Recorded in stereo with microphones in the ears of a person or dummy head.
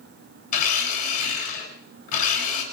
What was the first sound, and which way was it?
A blender, 55° left (ahead or behind).